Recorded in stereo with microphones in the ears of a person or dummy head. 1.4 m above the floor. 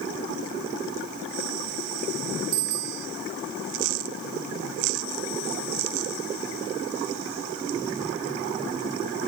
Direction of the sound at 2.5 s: 75° right (ahead or behind).